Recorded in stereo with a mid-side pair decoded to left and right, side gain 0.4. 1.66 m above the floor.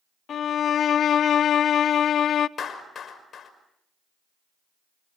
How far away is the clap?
About 5.5 m.